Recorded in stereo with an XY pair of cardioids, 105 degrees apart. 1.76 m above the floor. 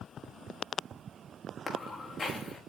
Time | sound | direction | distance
1.7 | footsteps | 35° left | 6.5 m